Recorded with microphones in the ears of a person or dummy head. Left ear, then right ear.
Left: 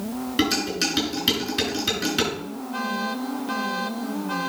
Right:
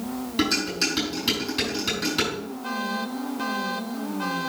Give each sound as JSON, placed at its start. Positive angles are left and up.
{"t": 0.4, "sound": "dishes clattering", "side_deg": 0, "distance_m": 6.0}